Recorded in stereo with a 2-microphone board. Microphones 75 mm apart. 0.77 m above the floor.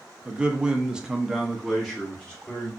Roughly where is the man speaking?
Centre.